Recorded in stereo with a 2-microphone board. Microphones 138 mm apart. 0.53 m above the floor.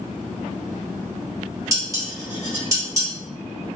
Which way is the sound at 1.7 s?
25° right (ahead or behind).